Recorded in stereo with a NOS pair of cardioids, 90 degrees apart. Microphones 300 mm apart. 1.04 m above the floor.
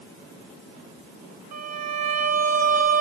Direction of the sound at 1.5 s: 65° right.